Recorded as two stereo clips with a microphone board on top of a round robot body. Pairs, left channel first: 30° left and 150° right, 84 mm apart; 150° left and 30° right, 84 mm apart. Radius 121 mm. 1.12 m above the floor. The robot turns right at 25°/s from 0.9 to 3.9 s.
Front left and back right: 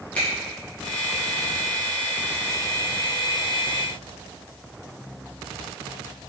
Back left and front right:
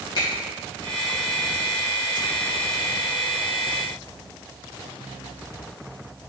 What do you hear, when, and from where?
0.1 s a finger snap: 105° left, 1.6 m